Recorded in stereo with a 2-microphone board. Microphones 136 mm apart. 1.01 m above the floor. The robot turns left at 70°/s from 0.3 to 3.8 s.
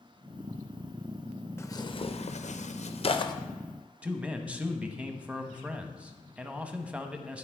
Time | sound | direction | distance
1.6 | tearing paper | 20° left (ahead or behind) | 0.5 m
4.0 | a man speaking | 10° right (ahead or behind) | 0.8 m